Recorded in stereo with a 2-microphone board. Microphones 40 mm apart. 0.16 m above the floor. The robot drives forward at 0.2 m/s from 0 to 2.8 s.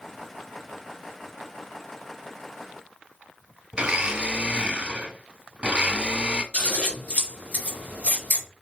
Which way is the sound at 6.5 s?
45° left (ahead or behind).